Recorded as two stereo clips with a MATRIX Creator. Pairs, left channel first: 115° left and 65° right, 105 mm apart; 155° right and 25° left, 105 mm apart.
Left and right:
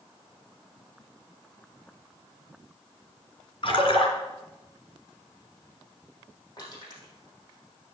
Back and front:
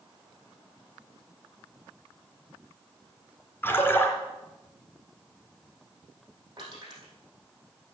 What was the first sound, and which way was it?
A splash, 135° left.